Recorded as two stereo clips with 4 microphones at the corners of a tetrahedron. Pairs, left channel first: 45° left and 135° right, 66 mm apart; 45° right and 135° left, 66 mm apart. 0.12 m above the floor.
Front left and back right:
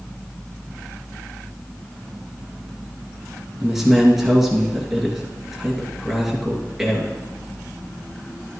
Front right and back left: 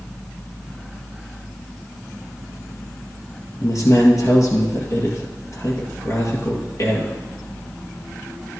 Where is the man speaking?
50° right, 2.5 m.